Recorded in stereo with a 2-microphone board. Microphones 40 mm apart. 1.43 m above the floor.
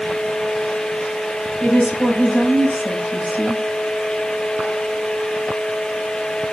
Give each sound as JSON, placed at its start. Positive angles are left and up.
{"t": 1.6, "sound": "a woman speaking", "side_deg": 35, "distance_m": 6.0}